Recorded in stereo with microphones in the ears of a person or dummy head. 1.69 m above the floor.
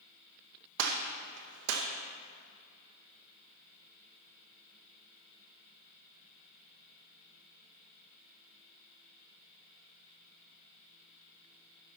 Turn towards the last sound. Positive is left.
turn(degrees=-70)  # may be behind; listen again after turning